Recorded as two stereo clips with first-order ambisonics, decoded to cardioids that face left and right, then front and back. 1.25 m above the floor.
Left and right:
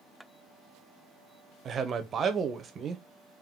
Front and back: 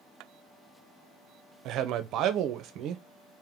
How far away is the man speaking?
About 0.6 m.